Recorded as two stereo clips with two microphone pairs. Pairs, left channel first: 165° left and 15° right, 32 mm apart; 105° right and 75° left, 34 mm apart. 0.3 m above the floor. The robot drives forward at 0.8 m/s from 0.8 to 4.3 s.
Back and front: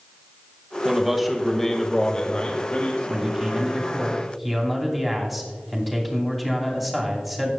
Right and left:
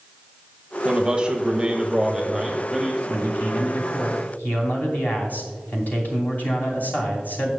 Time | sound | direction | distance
0.8 | a man speaking | 45° left | 1.4 m
3.1 | a man speaking | 80° right | 2.5 m